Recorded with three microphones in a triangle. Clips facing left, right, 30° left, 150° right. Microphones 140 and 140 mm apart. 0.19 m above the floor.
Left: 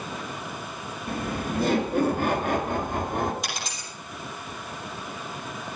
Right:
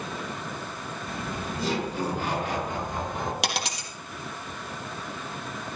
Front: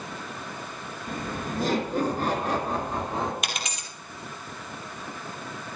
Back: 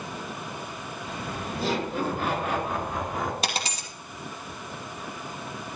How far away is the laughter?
About 3.5 m.